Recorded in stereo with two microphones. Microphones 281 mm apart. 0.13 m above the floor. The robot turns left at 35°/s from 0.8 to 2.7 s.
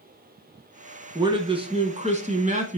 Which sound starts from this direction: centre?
A man speaking, at 1.1 s.